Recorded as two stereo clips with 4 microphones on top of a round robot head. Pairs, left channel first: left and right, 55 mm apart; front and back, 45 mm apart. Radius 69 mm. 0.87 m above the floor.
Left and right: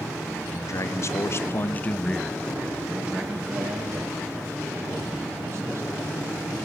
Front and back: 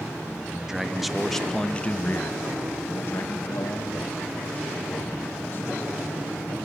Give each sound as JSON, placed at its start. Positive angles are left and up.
{"t": 0.5, "sound": "a man speaking", "azimuth_deg": 105, "distance_m": 2.0}